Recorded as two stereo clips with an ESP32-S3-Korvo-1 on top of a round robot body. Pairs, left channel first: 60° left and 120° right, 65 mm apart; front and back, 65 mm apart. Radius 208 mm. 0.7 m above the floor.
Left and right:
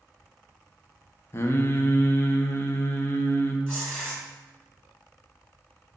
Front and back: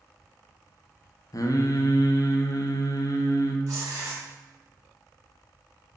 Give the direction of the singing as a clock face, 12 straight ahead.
12 o'clock.